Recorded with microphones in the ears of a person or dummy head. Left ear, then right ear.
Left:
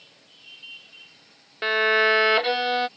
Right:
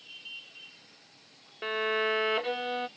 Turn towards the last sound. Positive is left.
turn(degrees=35)  # may be behind; listen again after turning